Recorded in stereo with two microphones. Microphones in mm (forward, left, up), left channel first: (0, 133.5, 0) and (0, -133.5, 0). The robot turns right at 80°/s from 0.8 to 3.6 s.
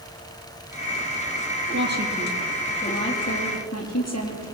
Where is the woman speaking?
55° right, 5.5 m; by 4.5 s 95° left, 5.5 m.